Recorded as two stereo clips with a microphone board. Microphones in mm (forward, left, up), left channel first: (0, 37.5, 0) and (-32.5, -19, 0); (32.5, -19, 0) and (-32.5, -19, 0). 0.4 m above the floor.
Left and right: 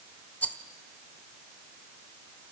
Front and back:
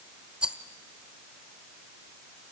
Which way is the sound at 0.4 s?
115° left.